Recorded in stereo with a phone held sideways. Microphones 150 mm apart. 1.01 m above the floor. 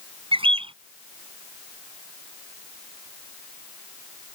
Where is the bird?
35° right (ahead or behind).